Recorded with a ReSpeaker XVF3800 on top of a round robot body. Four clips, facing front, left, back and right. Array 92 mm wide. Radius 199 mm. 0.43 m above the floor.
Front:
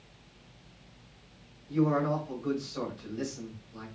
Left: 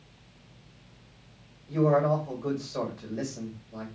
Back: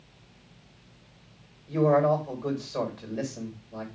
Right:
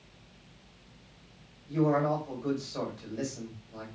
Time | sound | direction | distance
1.7 | a man speaking | 150° left | 4 m